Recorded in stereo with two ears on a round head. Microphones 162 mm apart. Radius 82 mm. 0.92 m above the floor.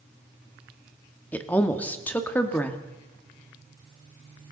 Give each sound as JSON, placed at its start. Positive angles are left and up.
{"t": 1.3, "sound": "a woman speaking", "side_deg": 10, "distance_m": 1.4}